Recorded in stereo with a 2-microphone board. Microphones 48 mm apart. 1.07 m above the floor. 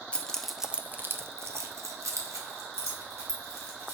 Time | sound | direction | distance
0.1 | keys jangling | 25° left (ahead or behind) | 0.7 m